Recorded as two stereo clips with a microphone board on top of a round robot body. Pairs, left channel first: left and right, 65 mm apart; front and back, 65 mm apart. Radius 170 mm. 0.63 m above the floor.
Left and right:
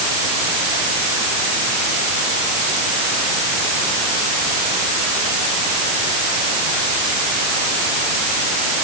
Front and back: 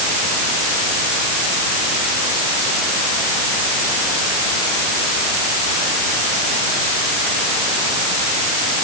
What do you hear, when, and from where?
Only background noise.